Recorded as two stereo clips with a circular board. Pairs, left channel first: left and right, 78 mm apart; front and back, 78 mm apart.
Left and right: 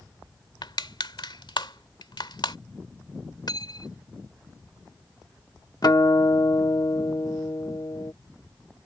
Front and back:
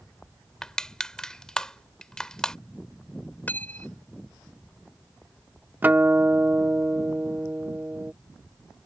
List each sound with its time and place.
0.6 s crushing: 80° left
3.5 s cutlery clinking: 65° left
5.8 s a guitar: 115° left